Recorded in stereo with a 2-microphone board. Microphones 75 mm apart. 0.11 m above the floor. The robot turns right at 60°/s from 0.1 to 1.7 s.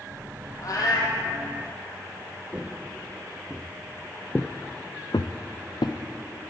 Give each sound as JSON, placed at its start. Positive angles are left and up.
{"t": 0.6, "sound": "a cat meowing", "azimuth_deg": 55, "distance_m": 1.8}
{"t": 2.5, "sound": "footsteps", "side_deg": -20, "distance_m": 1.3}